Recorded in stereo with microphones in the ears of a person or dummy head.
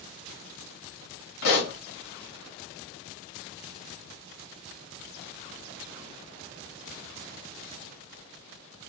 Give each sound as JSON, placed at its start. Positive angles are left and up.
{"t": 1.4, "sound": "a pop", "side_deg": 60, "distance_m": 1.6}